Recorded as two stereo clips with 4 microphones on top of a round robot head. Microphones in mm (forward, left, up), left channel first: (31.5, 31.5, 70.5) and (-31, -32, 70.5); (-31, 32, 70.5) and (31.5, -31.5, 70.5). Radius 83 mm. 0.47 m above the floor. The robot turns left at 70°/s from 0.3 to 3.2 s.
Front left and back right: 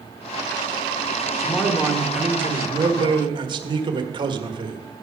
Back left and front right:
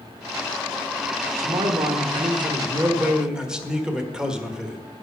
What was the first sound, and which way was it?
A man speaking, straight ahead.